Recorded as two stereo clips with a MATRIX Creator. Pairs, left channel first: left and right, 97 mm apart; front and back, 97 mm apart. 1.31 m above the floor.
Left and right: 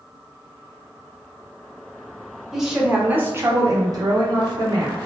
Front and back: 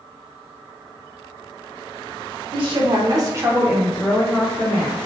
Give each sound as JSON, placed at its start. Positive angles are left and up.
{"t": 2.5, "sound": "a woman speaking", "azimuth_deg": -175, "distance_m": 0.9}